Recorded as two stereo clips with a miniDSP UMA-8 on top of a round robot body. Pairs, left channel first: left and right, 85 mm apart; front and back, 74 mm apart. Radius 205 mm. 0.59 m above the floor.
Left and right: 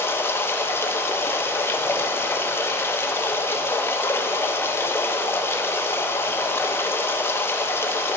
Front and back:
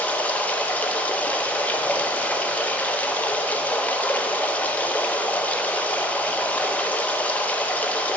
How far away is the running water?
About 0.7 m.